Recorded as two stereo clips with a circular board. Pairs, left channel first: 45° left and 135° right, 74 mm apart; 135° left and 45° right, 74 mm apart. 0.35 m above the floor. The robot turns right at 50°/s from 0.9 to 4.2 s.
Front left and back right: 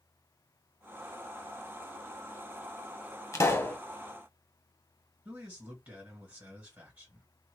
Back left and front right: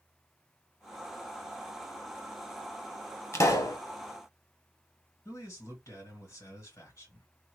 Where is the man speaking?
165° left, 1.9 m.